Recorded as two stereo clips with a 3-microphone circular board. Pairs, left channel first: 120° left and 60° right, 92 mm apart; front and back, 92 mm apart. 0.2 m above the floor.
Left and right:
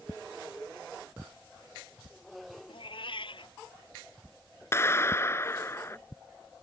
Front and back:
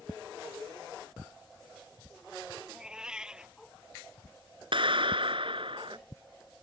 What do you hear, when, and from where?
2.7 s a cat meowing: 100° left
4.7 s a clap: straight behind